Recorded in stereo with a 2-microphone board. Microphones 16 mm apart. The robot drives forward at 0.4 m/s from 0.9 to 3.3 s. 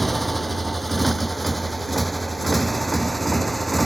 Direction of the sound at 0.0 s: 5° left (ahead or behind).